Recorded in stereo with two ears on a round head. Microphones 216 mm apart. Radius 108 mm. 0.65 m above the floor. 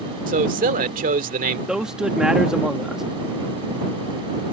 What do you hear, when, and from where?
0.3 s a man speaking: 35° right (ahead or behind)
1.7 s a man speaking: 5° right (ahead or behind)